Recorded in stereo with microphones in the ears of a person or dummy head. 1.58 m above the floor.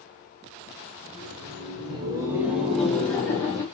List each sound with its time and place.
1.0 s laughter: 50° right (ahead or behind), 1.4 m; by 3.6 s 20° left (ahead or behind), 1.6 m